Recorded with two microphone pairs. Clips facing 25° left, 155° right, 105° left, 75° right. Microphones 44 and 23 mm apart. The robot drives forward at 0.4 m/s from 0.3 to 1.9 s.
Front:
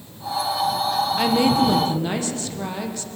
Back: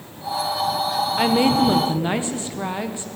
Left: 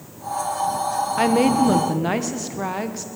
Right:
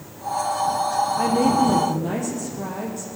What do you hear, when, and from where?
1.2 s a woman speaking: 130° left, 1.2 m; by 3.1 s 140° left, 1.5 m